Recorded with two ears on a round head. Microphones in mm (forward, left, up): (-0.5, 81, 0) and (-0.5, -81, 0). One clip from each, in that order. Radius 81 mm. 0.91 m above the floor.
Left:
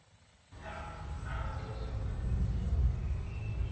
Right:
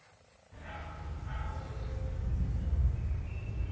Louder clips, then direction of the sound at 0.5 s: Left 1 dB; 25° left (ahead or behind).